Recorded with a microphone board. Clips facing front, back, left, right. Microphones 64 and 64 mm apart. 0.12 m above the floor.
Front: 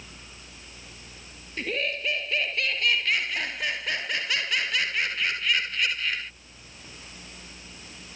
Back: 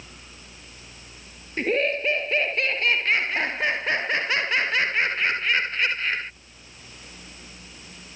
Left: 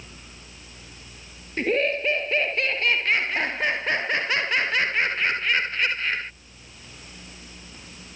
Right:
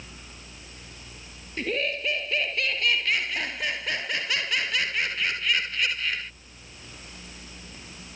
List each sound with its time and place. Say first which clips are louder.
1.6 s laughter: back 7 dB, left 6 dB; 135° left